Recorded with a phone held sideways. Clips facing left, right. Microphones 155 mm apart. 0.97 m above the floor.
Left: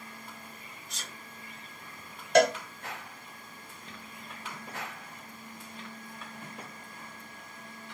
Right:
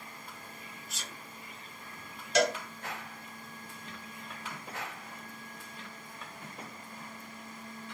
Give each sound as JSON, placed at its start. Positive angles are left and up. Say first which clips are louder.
{"t": 0.9, "sound": "a sneeze", "louder": "left 1 dB", "side_deg": -5, "distance_m": 2.0}
{"t": 2.4, "sound": "a cowbell", "louder": "left 6 dB", "side_deg": 55, "distance_m": 0.5}